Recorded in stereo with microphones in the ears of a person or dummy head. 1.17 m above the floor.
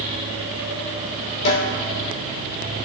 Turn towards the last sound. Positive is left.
turn(degrees=75)  # may be behind; listen again after turning